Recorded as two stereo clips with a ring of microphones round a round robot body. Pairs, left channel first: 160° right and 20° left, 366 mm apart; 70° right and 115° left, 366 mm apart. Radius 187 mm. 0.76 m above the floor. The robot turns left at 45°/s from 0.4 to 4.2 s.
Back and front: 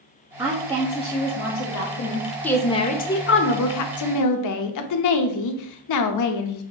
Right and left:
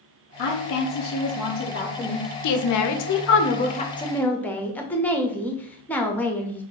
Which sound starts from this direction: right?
A woman speaking, at 2.4 s.